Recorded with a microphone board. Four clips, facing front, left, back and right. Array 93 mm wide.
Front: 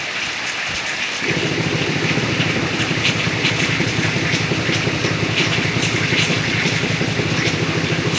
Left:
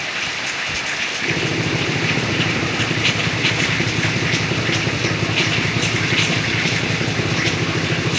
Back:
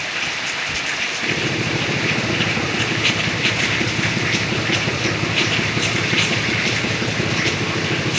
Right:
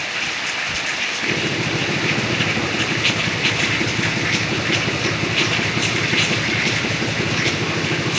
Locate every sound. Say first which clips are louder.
1.2 s a drill: left 1 dB, front 3 dB; 30° left, 7.5 m